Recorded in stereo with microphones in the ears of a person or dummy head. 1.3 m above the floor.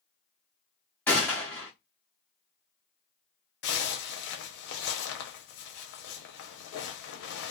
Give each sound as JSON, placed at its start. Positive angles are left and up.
{"t": 1.1, "sound": "a gunshot", "side_deg": 10, "distance_m": 0.8}
{"t": 3.6, "sound": "a zipper", "side_deg": 60, "distance_m": 0.6}